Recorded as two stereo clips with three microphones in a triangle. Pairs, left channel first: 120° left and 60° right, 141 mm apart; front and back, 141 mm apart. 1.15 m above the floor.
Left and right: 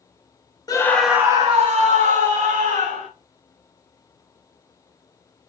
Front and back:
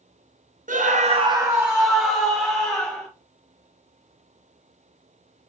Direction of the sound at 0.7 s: Straight behind.